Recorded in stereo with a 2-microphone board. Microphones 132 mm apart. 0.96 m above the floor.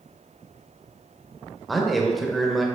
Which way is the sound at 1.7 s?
Centre (ahead or behind).